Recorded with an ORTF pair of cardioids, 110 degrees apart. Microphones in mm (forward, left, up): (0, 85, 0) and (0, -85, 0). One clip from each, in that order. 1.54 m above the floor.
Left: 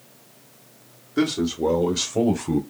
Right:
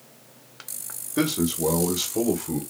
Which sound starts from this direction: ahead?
A man speaking, at 1.2 s.